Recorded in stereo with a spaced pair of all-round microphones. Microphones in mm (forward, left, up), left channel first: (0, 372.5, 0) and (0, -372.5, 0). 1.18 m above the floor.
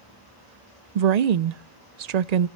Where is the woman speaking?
60° right (ahead or behind), 0.6 m.